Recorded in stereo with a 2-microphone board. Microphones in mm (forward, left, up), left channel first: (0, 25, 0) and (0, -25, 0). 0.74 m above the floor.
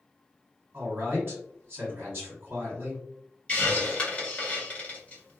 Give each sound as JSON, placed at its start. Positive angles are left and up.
{"t": 0.7, "sound": "a man speaking", "side_deg": -45, "distance_m": 1.8}
{"t": 3.5, "sound": "a hiss", "side_deg": 25, "distance_m": 1.1}